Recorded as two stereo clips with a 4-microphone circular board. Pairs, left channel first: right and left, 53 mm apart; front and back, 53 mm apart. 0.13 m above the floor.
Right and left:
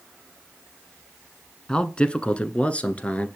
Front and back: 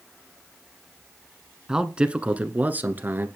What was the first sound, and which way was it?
A man speaking, 130° right.